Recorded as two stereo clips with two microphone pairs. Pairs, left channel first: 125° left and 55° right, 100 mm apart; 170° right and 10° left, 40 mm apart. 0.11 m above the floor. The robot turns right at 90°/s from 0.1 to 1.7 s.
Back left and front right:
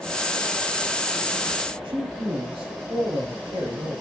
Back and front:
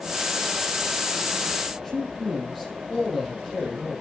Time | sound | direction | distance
1.8 | a man speaking | 80° right | 3 m